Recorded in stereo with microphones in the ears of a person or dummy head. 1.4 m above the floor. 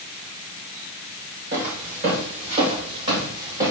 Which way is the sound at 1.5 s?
55° right (ahead or behind).